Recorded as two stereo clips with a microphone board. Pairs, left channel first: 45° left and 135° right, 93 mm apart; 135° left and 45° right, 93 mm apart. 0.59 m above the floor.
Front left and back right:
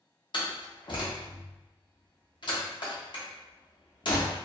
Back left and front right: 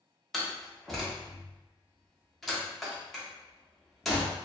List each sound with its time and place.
0.3 s a door slam: 45° left, 0.7 m